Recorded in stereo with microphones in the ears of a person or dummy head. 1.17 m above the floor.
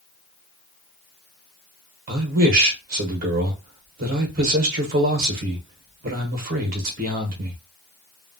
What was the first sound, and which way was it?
A man speaking, 45° right (ahead or behind).